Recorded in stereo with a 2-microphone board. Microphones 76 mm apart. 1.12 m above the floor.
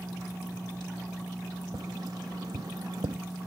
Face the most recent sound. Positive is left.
turn(degrees=-70)  # may be behind; listen again after turning